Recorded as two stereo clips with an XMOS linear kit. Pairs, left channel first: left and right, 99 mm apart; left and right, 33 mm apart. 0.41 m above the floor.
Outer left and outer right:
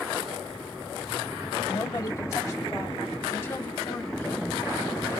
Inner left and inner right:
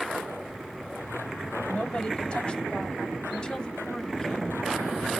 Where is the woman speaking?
35° left (ahead or behind), 2.0 m; by 4.6 s 15° left (ahead or behind), 3.5 m.